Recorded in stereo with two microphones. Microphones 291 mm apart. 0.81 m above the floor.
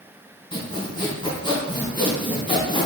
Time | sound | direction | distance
0.5 | sawing | 15° left (ahead or behind) | 2.0 m